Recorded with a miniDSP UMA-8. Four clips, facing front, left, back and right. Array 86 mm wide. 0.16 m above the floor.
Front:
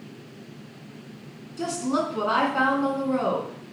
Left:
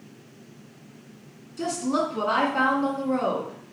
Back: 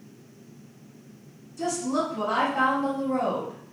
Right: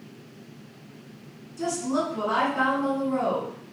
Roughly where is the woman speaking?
Ahead left.